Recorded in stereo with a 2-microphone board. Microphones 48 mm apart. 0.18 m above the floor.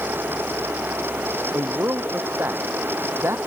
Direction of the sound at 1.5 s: 50° right (ahead or behind).